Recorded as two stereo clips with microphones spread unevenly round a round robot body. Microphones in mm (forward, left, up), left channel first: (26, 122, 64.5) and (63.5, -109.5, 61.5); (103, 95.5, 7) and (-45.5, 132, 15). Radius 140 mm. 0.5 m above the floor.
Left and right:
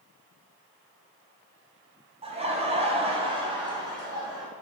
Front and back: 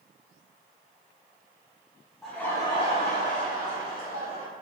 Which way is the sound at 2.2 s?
95° right.